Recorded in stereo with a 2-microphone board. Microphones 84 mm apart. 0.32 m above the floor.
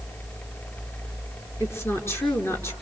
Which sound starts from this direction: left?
A woman speaking, at 1.6 s.